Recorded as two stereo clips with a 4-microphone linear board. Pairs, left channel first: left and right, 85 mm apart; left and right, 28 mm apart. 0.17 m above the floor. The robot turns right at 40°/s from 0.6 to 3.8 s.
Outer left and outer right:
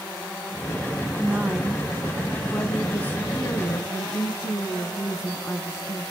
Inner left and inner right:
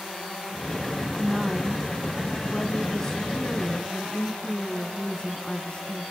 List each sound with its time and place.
1.2 s a woman speaking: 40° right, 1.1 m; by 6.1 s 65° left, 1.1 m